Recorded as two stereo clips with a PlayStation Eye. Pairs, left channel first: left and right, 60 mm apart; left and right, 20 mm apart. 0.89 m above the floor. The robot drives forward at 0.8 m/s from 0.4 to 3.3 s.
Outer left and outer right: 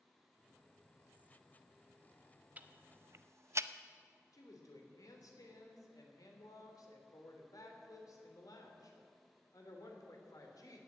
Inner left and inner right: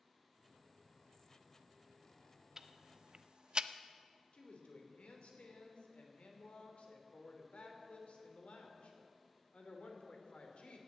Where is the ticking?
30° right (ahead or behind), 0.8 m; by 3.7 s 50° right (ahead or behind), 0.5 m.